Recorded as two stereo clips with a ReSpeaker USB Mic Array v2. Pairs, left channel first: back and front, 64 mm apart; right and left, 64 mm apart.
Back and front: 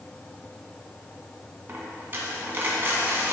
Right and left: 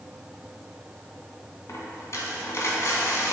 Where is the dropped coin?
55° right, 1.9 m.